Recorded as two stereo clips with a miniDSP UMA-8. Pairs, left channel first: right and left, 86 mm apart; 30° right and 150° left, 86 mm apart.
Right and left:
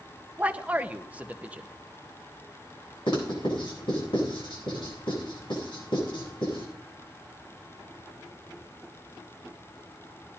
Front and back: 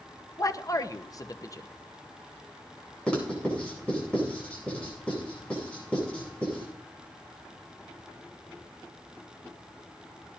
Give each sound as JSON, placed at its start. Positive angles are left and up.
{"t": 0.4, "sound": "a man speaking", "azimuth_deg": 15, "distance_m": 0.9}
{"t": 3.1, "sound": "writing", "azimuth_deg": -105, "distance_m": 9.0}